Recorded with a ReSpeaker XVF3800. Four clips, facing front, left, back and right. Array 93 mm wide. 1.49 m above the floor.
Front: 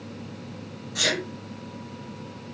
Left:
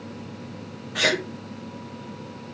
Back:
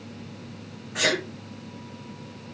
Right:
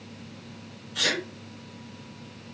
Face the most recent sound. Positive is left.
turn(degrees=125)